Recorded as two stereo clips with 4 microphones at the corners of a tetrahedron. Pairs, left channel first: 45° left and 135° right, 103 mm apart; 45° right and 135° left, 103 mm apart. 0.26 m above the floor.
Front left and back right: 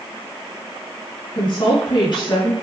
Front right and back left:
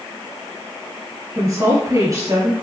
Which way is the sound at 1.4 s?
80° left.